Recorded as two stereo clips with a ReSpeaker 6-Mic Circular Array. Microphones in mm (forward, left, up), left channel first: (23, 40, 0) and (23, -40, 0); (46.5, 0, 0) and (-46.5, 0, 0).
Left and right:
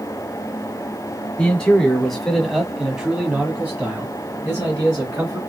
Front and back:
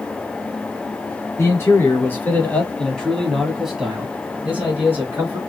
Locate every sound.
1.4 s a man speaking: 20° left, 1.8 m; by 5.4 s 125° right, 2 m